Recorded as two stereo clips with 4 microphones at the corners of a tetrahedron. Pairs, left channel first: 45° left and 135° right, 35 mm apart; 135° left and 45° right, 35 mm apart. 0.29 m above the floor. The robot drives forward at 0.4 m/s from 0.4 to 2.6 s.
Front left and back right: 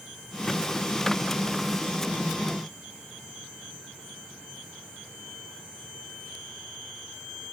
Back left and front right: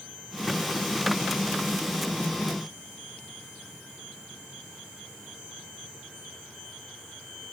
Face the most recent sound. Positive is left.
No sound to turn to.